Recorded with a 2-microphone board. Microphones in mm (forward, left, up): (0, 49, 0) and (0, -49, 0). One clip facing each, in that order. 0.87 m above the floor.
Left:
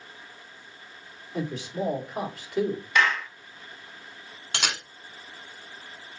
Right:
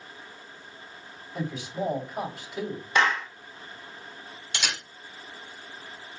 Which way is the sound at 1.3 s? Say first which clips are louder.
Left 1 dB; 65° left (ahead or behind).